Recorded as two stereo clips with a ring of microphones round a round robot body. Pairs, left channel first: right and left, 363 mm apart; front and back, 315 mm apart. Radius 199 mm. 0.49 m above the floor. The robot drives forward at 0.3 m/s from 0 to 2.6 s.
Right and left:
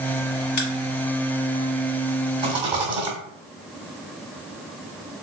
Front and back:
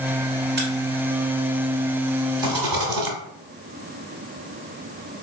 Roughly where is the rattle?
Behind.